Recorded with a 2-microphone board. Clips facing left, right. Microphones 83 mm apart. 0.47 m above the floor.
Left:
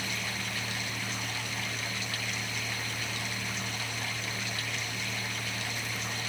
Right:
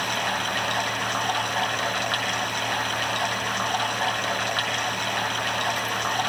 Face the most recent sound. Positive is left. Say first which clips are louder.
# right 11 dB
turn(degrees=-65)  # may be behind; listen again after turning